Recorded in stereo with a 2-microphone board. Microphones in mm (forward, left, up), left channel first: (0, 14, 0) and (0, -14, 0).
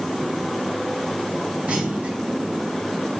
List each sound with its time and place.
1.7 s a clunk: 45° right (ahead or behind), 2.5 m